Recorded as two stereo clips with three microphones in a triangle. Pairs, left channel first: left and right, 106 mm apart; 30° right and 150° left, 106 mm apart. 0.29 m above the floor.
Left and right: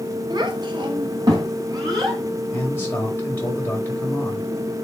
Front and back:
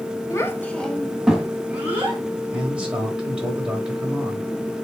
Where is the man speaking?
85° left, 1.3 m.